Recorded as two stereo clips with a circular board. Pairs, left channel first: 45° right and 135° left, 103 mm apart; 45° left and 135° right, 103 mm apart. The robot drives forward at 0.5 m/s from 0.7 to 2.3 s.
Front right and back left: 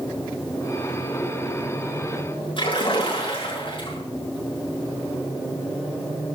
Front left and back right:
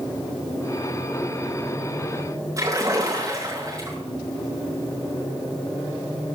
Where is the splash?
80° right, 7 m.